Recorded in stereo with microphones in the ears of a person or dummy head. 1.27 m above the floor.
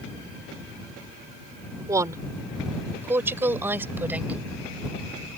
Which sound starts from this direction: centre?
A woman speaking, at 1.9 s.